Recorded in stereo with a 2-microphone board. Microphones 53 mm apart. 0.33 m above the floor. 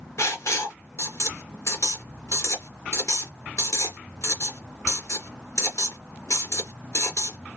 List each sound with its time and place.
0.2 s writing: 70° left (ahead or behind), 2.5 m